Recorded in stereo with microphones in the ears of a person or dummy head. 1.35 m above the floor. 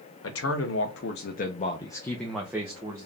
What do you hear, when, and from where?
0.2 s a man speaking: 75° left (ahead or behind), 0.9 m; by 3.1 s 20° right (ahead or behind), 0.9 m